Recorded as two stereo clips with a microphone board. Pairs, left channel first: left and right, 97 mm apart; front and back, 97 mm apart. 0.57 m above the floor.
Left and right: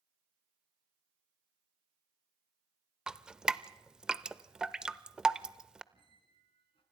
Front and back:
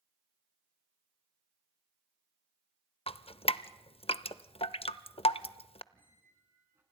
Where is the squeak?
110° left, 3 m.